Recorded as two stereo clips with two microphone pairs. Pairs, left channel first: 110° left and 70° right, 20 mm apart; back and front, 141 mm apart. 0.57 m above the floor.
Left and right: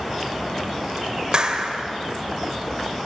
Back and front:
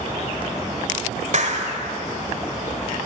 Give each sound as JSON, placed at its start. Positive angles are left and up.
{"t": 1.3, "sound": "a clap", "azimuth_deg": -25, "distance_m": 2.0}